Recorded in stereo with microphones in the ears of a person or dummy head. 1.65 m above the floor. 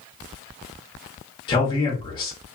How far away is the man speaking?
About 1.1 m.